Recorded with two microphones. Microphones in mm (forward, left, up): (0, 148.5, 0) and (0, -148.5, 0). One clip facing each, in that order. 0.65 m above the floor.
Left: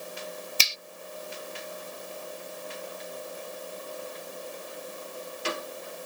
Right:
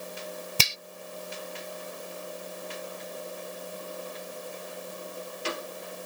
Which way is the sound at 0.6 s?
60° right (ahead or behind).